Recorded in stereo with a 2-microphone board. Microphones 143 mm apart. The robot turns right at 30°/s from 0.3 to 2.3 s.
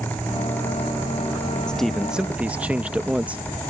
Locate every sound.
1.7 s a man speaking: 5° left (ahead or behind); by 3.4 s 10° right (ahead or behind)